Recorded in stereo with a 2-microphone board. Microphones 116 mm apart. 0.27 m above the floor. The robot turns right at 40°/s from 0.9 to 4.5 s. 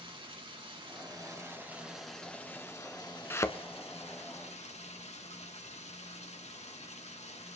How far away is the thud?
About 0.7 m.